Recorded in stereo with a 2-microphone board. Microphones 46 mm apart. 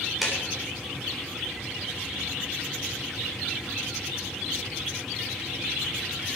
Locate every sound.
0.2 s a clap: 5° right (ahead or behind), 3.5 m